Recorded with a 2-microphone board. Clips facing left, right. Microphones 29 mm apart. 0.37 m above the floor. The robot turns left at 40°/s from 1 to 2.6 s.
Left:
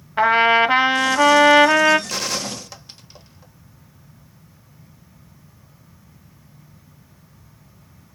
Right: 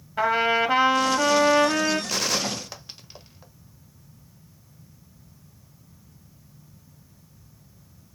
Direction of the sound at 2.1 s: Centre (ahead or behind).